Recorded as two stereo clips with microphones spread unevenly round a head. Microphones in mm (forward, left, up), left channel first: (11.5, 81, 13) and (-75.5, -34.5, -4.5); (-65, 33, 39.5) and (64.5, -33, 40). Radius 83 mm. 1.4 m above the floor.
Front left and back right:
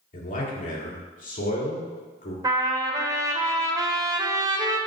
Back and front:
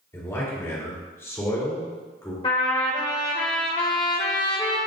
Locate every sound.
0.1 s a man speaking: 80° left, 3 m
2.4 s a trumpet: straight behind, 1.2 m